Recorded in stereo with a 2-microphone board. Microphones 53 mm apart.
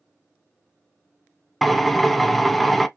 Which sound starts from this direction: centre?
A drill, at 1.6 s.